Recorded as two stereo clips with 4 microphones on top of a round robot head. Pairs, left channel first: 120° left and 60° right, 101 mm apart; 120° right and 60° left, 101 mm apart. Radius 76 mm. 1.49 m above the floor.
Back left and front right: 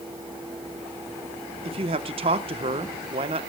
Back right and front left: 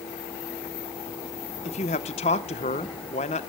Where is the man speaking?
95° right, 0.9 m.